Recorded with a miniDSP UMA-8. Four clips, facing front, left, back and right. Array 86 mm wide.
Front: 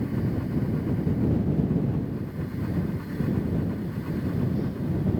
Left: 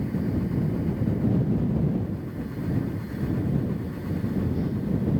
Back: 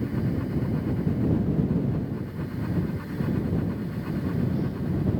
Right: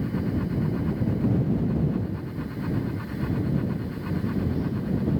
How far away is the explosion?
No explosion in this recording.